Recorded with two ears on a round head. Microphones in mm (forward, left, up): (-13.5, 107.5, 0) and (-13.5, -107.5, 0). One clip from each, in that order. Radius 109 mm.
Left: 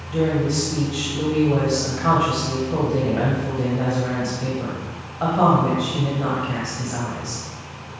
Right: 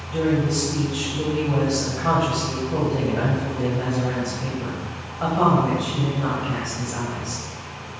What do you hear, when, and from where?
0.1 s a woman speaking: 15° left (ahead or behind), 2.5 m